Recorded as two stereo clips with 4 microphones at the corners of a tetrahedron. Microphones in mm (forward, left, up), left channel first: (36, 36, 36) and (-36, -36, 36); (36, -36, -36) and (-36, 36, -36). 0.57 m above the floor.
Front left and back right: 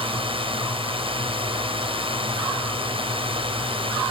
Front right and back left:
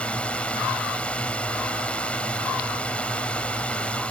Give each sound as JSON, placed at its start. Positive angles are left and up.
{"t": 0.0, "sound": "a drone", "azimuth_deg": -120}